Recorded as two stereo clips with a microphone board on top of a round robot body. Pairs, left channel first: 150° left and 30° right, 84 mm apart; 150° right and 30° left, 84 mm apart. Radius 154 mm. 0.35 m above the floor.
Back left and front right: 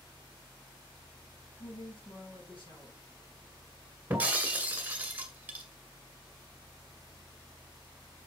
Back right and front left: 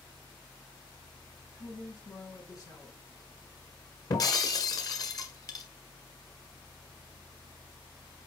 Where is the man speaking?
160° left, 5.5 m.